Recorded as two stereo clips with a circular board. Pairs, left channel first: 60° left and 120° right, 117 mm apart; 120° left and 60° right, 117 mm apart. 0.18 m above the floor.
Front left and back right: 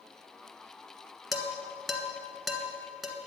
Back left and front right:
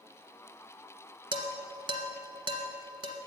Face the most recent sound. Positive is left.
turn(degrees=-30)